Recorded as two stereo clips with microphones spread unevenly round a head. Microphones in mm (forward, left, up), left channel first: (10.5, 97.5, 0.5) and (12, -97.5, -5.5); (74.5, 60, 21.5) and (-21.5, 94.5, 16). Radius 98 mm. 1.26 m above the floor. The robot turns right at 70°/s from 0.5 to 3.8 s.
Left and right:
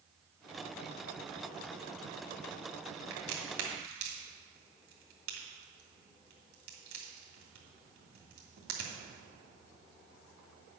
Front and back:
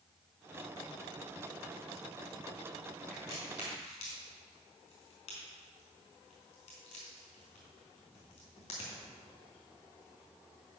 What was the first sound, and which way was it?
A crack, 105° right.